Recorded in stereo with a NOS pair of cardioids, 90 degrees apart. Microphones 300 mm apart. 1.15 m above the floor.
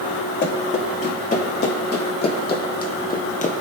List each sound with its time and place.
0.4 s running footsteps: 35° left, 6 m; by 3.6 s 30° left, 1.8 m